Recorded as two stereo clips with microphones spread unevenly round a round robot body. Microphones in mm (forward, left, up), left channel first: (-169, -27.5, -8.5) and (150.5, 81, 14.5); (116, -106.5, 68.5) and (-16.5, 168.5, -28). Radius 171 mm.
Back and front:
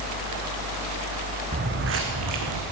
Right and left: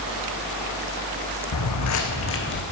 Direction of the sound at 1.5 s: 50° right.